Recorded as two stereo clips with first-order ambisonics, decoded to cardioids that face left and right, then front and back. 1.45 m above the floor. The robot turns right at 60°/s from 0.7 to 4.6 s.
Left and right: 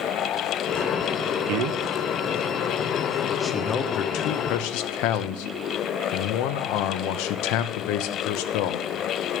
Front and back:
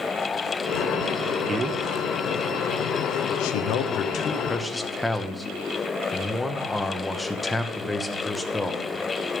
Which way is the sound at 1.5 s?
105° right.